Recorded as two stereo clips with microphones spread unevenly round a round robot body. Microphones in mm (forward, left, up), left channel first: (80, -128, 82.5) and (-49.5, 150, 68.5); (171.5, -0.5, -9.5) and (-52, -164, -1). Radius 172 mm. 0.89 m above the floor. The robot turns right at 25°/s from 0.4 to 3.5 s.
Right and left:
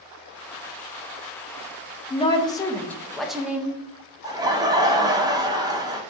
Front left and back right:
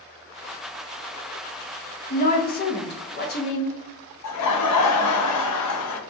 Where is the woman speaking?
Straight ahead, 0.5 m; by 3.8 s 35° left, 0.5 m.